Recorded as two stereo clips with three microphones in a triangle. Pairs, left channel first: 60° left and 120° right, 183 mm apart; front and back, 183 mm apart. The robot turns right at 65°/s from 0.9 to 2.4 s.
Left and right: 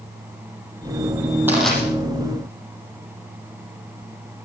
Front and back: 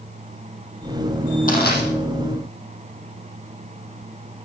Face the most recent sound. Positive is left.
turn(degrees=20)